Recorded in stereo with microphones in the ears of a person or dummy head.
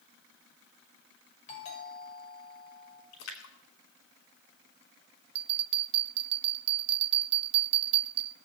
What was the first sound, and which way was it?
A doorbell, 50° left (ahead or behind).